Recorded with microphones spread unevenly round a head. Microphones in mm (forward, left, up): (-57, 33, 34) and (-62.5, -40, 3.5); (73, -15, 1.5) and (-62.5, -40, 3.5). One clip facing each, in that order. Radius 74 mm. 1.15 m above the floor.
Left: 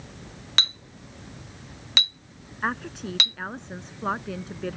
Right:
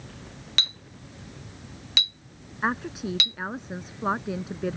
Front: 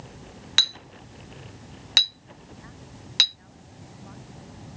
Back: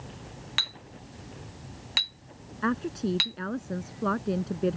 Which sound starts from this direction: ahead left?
A clink, at 0.6 s.